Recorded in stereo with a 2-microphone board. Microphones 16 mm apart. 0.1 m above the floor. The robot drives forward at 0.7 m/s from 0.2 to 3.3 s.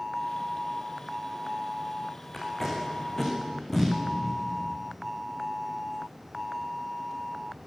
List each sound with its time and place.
2.3 s tape being pulled: 15° left (ahead or behind), 6.5 m